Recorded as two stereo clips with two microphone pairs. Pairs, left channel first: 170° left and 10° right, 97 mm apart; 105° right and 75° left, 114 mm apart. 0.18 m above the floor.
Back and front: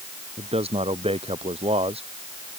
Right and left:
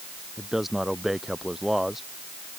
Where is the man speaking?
10° right.